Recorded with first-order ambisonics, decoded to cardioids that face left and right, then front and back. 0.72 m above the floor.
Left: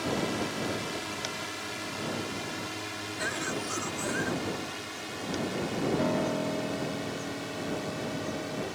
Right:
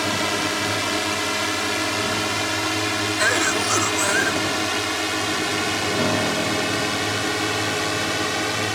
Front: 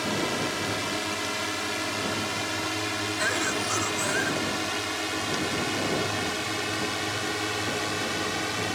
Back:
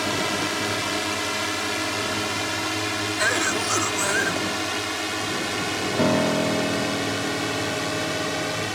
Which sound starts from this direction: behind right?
A cough, at 3.2 s.